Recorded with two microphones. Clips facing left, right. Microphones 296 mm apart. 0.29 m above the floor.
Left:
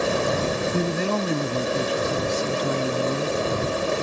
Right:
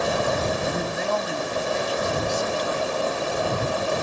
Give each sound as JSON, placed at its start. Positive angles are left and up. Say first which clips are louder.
{"t": 0.7, "sound": "a man speaking", "louder": "left 3 dB", "side_deg": 35}